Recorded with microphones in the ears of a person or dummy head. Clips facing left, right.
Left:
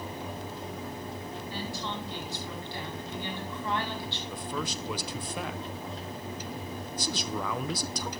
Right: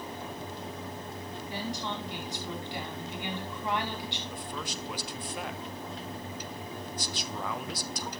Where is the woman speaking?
15° right (ahead or behind), 5 m.